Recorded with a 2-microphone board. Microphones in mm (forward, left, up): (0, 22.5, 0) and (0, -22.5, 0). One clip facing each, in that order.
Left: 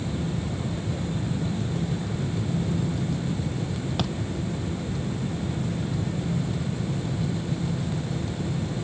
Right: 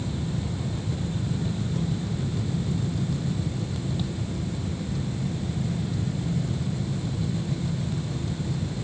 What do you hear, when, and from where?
4.0 s a thud: 80° left